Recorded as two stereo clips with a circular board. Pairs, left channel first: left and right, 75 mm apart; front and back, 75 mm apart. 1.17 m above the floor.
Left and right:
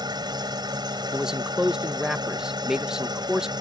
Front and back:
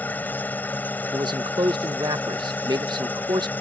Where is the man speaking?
170° right.